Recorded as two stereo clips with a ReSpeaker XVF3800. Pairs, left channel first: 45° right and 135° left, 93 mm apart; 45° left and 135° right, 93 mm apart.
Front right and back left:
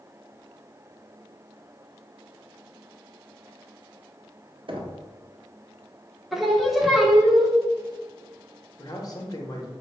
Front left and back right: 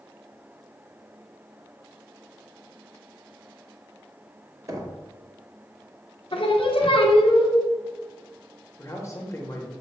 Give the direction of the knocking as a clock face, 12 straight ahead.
6 o'clock.